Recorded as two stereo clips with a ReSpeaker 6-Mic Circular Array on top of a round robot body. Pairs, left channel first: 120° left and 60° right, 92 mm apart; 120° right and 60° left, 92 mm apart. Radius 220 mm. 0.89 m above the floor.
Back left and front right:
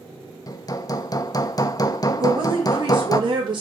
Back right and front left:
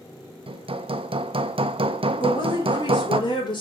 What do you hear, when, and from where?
0.5 s hammering: 75° left, 0.9 m
2.2 s a woman speaking: 90° right, 3.5 m